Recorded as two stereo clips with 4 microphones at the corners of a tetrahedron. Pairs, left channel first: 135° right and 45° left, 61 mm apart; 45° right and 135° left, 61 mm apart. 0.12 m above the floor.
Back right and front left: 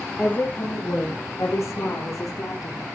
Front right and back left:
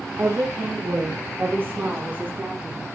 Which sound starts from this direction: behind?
A woman speaking, at 0.2 s.